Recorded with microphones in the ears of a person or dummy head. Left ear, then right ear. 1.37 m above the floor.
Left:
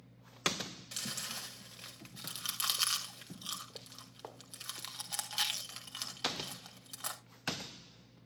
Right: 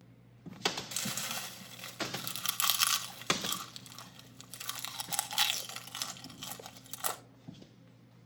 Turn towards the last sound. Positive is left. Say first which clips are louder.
# right 3 dB
turn(degrees=-20)  # may be behind; listen again after turning